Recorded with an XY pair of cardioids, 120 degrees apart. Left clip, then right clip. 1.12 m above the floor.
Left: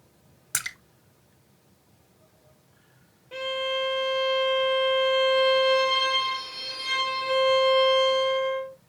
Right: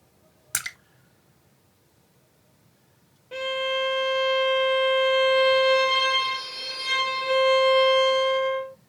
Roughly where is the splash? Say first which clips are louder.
Even; ahead.